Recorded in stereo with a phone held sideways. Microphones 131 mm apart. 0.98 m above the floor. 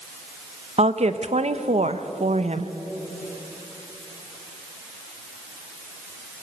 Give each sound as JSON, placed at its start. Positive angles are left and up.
{"t": 0.8, "sound": "a woman speaking", "side_deg": -55, "distance_m": 0.9}